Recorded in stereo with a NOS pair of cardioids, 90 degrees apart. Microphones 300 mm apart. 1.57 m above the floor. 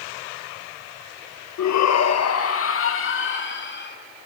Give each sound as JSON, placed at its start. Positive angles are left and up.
{"t": 1.6, "sound": "a shout", "azimuth_deg": 65, "distance_m": 1.8}